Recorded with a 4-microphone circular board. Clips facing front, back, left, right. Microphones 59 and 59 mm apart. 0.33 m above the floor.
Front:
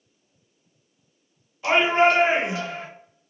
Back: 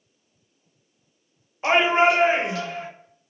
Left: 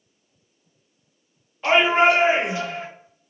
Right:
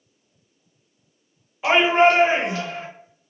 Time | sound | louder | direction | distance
1.6 | a shout | even, right 1 dB | 170° right | 1.0 m